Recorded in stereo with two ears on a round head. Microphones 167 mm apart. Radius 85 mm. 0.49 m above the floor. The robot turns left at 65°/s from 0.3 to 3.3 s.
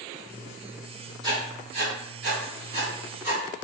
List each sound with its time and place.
1.2 s writing: 25° right (ahead or behind), 1.9 m; by 3.6 s 10° right (ahead or behind), 1.9 m